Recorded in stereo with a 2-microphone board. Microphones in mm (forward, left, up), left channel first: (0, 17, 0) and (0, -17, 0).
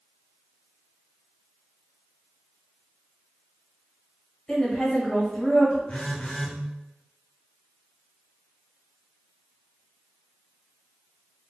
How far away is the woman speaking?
About 1.8 m.